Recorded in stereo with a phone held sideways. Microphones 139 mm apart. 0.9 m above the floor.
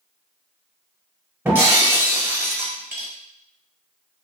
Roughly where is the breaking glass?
Centre.